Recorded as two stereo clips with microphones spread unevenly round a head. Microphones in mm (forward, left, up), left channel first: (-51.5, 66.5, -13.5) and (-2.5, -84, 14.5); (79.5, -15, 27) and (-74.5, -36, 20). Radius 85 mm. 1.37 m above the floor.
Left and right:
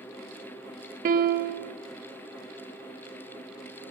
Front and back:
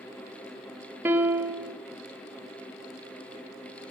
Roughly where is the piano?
Right.